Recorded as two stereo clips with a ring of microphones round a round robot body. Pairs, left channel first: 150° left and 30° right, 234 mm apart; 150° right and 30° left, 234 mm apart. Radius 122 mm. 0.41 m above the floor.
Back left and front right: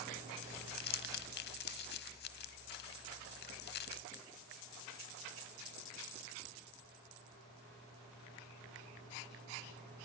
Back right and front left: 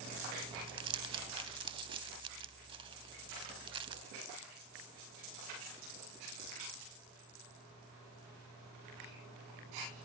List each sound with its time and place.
0.4 s crumpling: 100° left, 0.5 m